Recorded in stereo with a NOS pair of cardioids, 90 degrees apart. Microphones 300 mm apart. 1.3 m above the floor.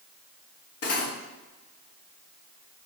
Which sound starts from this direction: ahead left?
Cutlery clinking, at 0.8 s.